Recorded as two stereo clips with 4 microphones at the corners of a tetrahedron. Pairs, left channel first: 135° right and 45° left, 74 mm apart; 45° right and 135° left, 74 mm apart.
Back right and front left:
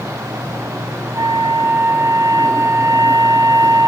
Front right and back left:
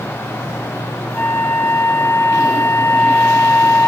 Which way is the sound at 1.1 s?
15° left.